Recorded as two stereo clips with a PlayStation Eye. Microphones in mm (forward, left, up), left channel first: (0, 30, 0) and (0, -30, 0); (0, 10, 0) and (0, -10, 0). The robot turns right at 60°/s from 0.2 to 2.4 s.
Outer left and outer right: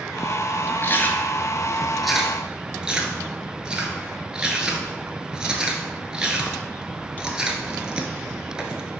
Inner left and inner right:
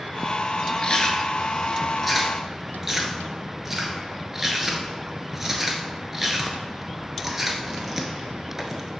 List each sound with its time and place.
0.8 s chewing: 40° left (ahead or behind), 0.8 m; by 8.9 s 15° right (ahead or behind), 0.8 m